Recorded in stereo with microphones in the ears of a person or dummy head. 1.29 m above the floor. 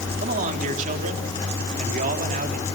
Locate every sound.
0.2 s a man speaking: 45° right (ahead or behind), 3.5 m